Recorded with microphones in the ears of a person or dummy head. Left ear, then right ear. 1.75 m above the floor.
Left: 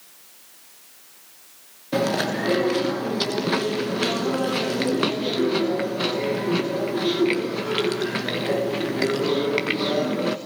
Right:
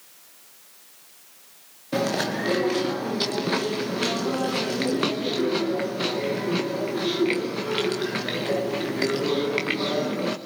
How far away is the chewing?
About 1.1 m.